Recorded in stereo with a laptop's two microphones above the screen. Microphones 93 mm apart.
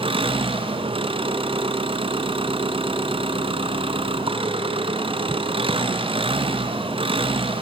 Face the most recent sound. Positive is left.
turn(degrees=-75)  # may be behind; listen again after turning